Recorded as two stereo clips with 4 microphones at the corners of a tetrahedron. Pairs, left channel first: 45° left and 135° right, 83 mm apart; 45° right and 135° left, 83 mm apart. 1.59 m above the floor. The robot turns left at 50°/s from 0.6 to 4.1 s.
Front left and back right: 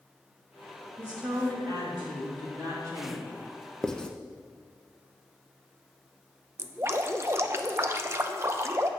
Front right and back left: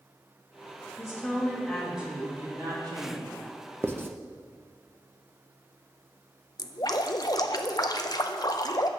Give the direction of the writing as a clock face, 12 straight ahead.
8 o'clock.